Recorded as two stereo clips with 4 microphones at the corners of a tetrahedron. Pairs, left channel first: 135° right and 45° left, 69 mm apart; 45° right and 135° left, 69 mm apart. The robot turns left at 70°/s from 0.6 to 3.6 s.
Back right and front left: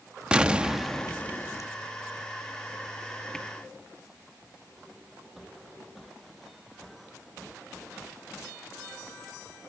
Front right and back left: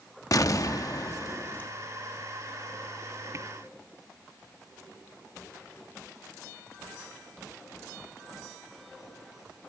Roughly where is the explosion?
Ahead right.